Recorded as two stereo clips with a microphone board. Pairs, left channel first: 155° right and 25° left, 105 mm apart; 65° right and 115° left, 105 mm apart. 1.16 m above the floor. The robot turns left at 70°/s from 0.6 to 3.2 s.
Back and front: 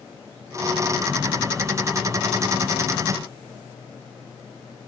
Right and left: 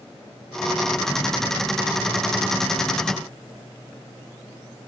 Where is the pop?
No pop in this recording.